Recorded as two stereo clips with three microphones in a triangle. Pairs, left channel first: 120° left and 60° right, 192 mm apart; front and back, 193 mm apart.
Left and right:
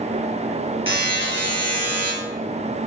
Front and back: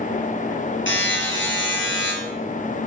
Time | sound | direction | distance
0.9 | a buzzer | 5° left | 3 m